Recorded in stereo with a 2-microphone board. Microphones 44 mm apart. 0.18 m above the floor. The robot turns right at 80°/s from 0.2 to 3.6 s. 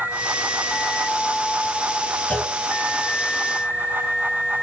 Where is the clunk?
35° left (ahead or behind), 1.0 m; by 2.5 s 15° left (ahead or behind), 1.0 m.